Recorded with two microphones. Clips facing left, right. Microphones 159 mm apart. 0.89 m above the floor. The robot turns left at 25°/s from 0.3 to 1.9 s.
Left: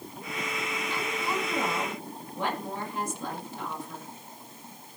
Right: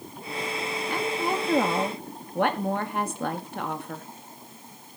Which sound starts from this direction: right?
A woman speaking, at 0.9 s.